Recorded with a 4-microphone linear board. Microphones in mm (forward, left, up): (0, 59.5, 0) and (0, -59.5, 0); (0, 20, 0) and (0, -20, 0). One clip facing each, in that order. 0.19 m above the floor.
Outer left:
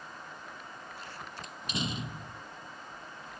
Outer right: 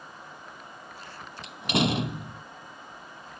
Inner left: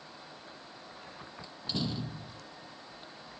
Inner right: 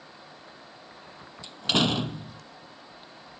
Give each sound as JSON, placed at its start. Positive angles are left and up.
{"t": 1.4, "sound": "a door slam", "side_deg": -70}